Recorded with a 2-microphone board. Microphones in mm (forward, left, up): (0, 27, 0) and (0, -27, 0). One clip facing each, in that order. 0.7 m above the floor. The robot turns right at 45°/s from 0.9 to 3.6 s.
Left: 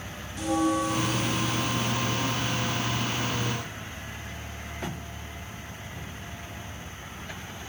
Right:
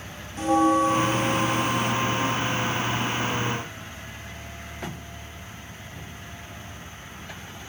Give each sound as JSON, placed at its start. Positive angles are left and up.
{"t": 0.4, "sound": "a bell", "azimuth_deg": -140, "distance_m": 0.7}